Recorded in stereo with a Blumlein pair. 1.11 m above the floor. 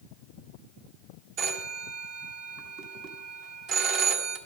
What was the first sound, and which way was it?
A phone ringing, 35° right.